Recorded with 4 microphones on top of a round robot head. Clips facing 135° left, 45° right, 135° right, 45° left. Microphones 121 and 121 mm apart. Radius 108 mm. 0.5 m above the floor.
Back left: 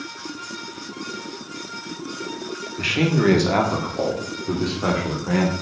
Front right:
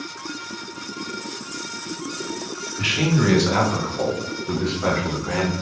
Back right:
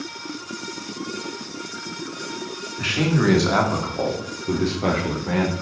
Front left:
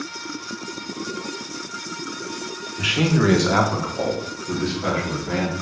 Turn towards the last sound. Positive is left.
turn(degrees=-150)